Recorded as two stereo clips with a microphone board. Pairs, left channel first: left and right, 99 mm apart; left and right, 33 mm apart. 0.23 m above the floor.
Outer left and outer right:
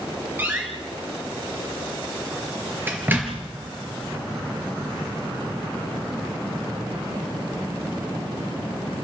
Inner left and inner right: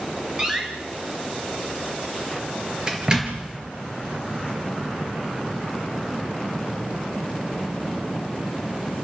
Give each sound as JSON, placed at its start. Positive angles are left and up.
{"t": 0.4, "sound": "a door slam", "side_deg": -20, "distance_m": 3.5}